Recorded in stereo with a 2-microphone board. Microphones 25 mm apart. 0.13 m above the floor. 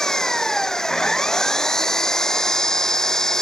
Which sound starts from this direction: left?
An engine running, at 0.0 s.